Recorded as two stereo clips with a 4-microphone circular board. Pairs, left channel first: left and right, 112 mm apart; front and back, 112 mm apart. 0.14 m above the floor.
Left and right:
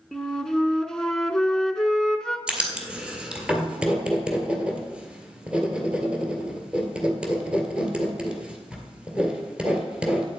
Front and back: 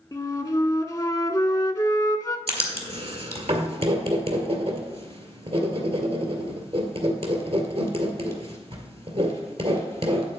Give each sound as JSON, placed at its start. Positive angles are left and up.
{"t": 0.1, "sound": "a flute", "azimuth_deg": 10, "distance_m": 0.6}
{"t": 2.5, "sound": "writing", "azimuth_deg": -170, "distance_m": 1.7}